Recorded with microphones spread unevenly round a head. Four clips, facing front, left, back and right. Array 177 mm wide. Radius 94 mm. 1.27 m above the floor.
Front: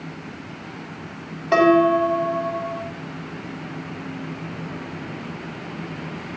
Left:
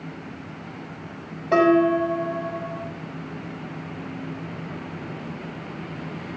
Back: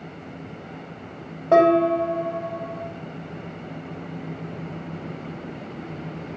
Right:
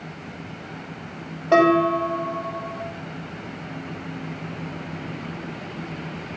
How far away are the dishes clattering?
About 5.5 m.